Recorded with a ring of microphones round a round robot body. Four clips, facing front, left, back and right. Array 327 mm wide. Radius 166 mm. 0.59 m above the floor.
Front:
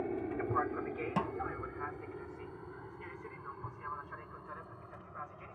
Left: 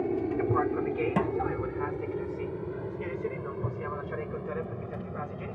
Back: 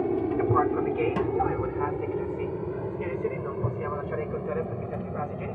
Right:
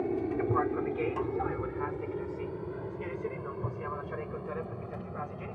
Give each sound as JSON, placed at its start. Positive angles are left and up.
{"t": 0.0, "sound": "an aircraft", "azimuth_deg": 170}
{"t": 1.2, "sound": "a snare drum", "azimuth_deg": 100}